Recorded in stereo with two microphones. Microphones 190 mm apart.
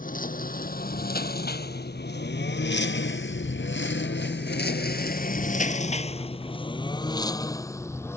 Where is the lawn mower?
45° left (ahead or behind); by 8.2 s 15° left (ahead or behind).